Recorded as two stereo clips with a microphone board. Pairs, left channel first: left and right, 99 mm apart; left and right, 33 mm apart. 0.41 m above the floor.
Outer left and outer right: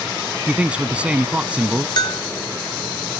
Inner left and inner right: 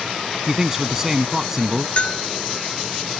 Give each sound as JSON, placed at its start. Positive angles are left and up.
{"t": 0.5, "sound": "a man speaking", "side_deg": -15}
{"t": 2.0, "sound": "a bell", "side_deg": 50}